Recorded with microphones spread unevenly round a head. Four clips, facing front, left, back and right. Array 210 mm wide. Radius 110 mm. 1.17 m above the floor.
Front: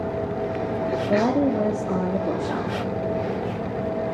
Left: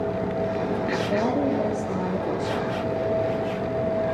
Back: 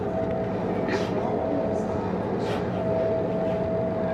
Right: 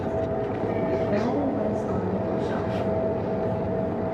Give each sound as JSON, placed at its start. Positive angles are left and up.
{"t": 1.1, "sound": "a woman speaking", "azimuth_deg": 5, "distance_m": 3.0}